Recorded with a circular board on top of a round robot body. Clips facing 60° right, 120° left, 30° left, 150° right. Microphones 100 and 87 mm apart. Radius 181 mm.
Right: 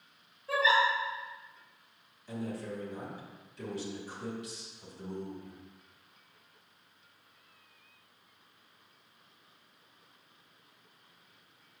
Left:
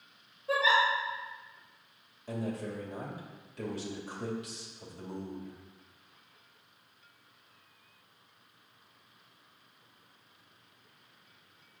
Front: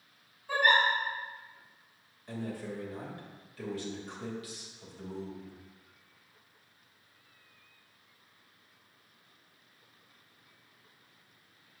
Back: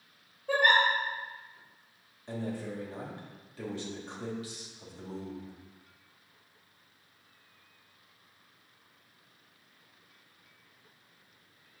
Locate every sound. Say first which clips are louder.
0.5 s a giggle: even, back 1 dB; 170° right, 3 m
2.3 s a man speaking: left 2 dB, back 2 dB; 150° left, 2 m